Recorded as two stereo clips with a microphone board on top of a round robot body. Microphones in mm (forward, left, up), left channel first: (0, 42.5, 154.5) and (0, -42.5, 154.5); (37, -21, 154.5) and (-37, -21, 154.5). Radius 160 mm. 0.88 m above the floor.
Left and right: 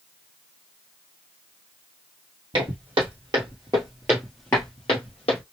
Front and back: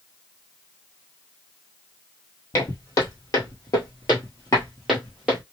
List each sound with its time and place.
2.5 s footsteps: 55° right, 1.5 m; by 5.4 s 105° left, 1.0 m